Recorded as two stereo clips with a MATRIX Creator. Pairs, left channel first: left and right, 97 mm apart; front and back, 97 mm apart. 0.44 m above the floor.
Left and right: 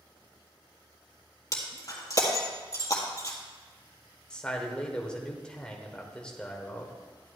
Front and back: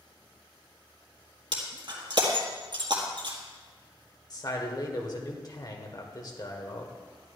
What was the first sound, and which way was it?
Breaking glass, 145° left.